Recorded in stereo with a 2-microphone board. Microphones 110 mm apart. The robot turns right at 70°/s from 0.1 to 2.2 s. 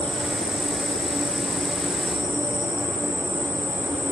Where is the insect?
170° left, 4.5 m; by 4.1 s 45° right, 4.5 m.